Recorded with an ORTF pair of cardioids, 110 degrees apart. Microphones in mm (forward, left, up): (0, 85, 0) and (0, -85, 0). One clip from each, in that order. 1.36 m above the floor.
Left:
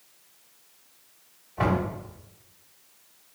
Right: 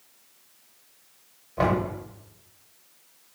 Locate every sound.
1.6 s knocking: 50° right, 2.0 m